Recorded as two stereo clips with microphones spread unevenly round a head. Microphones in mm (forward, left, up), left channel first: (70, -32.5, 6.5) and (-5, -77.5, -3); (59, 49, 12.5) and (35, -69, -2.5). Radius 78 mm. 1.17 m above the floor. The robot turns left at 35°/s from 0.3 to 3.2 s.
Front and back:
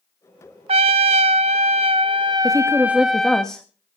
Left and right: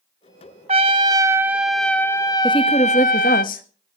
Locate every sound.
0.7 s a trumpet: 155° right, 0.7 m; by 3.4 s 120° left, 0.7 m
2.4 s a woman speaking: 145° left, 1.5 m; by 3.6 s 120° left, 1.5 m